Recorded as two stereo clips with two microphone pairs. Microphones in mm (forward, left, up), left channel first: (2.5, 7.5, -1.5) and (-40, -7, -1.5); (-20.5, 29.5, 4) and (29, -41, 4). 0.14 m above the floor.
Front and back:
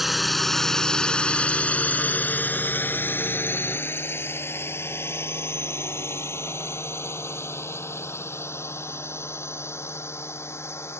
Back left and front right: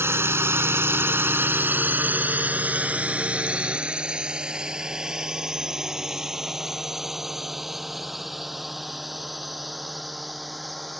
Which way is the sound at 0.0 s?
80° right.